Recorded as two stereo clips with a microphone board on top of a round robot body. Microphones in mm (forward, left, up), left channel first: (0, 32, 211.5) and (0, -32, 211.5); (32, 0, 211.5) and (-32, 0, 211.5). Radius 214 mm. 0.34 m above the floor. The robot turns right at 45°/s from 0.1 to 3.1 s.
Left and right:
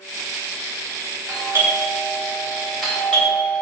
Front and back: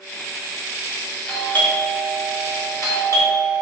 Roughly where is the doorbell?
Ahead right.